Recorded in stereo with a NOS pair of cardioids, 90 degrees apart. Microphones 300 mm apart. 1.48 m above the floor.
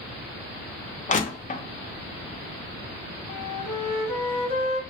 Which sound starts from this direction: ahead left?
Crushing, at 1.1 s.